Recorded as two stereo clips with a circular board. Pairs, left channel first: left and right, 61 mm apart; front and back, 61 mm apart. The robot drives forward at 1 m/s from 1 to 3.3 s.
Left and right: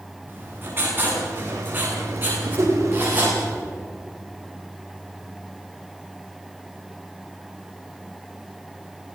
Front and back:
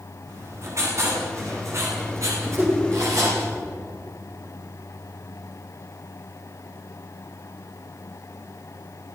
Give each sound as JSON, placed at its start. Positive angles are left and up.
{"t": 0.3, "sound": "writing", "azimuth_deg": -145, "distance_m": 9.0}
{"t": 2.6, "sound": "a whoosh", "azimuth_deg": -125, "distance_m": 7.0}